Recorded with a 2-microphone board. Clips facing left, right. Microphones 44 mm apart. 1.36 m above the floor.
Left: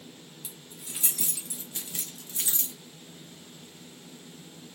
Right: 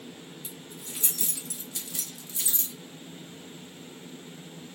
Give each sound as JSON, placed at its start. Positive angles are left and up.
{"t": 0.4, "sound": "keys jangling", "side_deg": 5, "distance_m": 1.4}